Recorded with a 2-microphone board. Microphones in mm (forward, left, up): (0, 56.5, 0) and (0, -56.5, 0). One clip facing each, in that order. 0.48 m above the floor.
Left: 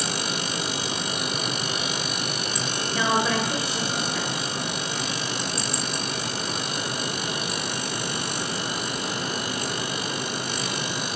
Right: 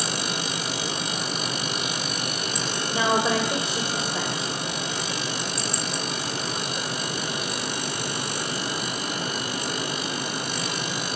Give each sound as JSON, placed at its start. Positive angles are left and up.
{"t": 2.9, "sound": "a woman speaking", "side_deg": -25, "distance_m": 2.0}